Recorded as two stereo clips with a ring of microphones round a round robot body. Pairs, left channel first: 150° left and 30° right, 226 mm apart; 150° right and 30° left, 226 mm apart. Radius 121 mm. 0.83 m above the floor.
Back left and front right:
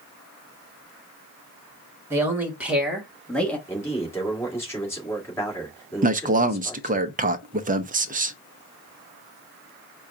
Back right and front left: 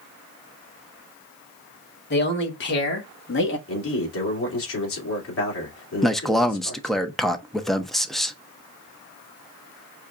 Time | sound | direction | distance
2.1 | a man speaking | 110° right | 2.0 m
3.7 | a man speaking | 130° right | 2.5 m
6.0 | a man speaking | 60° right | 0.6 m